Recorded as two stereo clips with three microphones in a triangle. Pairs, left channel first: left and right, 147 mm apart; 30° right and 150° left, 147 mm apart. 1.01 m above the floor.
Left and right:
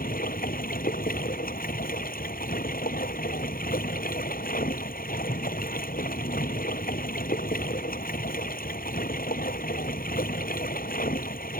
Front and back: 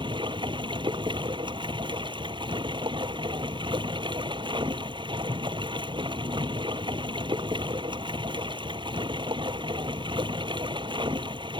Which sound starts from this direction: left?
Running water, at 0.0 s.